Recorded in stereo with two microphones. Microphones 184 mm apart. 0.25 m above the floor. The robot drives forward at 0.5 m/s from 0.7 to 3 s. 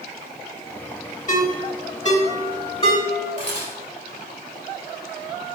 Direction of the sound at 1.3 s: 45° left (ahead or behind).